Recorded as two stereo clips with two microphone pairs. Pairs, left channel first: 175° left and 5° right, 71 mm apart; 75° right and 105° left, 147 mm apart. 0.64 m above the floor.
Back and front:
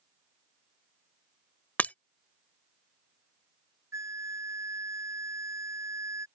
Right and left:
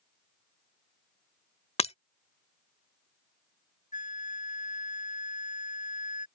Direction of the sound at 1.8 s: 120° right.